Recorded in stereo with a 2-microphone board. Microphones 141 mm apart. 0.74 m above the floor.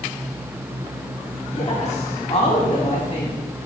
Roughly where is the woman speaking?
Left.